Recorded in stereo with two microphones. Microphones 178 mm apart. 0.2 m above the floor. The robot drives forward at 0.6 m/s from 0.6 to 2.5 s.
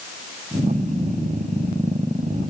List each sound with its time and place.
Only background noise.